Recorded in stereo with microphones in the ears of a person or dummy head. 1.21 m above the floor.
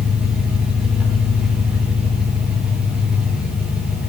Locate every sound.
0.0 s an engine running: 5° right (ahead or behind), 3.5 m